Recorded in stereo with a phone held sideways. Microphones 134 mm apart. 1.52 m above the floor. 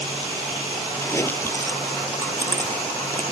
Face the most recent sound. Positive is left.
turn(degrees=20)  # may be behind; listen again after turning